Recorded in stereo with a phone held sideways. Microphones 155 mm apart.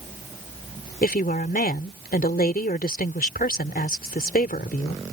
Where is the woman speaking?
75° left (ahead or behind).